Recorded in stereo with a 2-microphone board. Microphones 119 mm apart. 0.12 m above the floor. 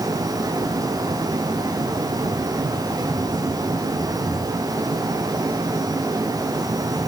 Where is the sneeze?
I don't hear a sneeze.